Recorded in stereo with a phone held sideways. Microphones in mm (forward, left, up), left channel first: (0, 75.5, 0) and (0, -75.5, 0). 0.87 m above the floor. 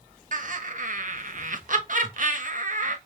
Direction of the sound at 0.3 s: 60° right (ahead or behind).